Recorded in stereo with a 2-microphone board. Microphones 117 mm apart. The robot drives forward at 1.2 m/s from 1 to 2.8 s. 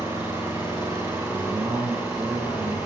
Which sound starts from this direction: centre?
An engine running, at 0.0 s.